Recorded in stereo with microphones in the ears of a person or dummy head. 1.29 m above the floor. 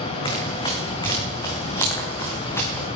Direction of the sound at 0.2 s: 25° left (ahead or behind).